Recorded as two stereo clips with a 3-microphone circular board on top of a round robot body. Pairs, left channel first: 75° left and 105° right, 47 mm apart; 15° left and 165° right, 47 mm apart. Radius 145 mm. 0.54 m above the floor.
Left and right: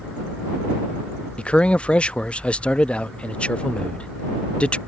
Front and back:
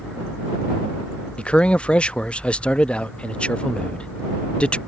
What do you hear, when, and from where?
1.4 s a man speaking: 45° left